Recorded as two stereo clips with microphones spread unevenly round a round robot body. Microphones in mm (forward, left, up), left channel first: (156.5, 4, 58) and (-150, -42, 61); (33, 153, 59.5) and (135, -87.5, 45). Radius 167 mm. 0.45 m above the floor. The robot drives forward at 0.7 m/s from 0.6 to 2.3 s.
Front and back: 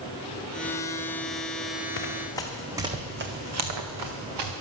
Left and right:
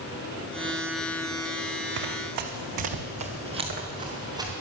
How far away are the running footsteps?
About 1.8 m.